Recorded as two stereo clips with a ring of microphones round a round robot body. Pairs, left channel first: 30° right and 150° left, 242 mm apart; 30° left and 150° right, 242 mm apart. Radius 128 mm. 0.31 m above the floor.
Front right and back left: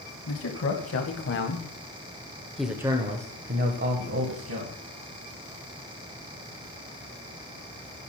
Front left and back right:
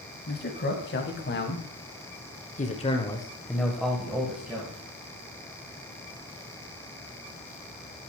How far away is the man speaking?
About 3 m.